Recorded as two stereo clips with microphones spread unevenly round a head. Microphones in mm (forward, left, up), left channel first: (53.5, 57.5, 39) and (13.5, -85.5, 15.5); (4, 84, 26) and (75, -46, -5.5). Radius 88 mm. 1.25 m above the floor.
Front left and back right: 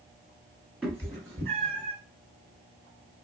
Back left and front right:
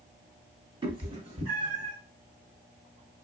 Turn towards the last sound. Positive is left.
turn(degrees=-80)